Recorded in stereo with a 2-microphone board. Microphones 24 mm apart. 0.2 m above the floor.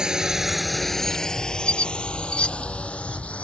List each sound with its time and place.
0.0 s a drone: 30° right (ahead or behind); by 3.4 s 60° left (ahead or behind)
1.6 s a squeak: 45° left (ahead or behind)